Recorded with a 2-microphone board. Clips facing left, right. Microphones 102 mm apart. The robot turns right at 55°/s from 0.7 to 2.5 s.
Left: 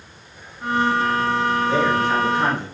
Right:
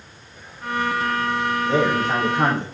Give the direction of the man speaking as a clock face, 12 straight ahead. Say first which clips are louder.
Right 2 dB; 5 o'clock.